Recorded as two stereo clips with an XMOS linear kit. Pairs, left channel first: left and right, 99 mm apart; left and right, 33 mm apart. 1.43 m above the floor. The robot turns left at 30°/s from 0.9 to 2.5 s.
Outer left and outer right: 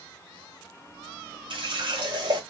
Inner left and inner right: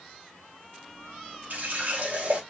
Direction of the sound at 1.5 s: 60° right (ahead or behind).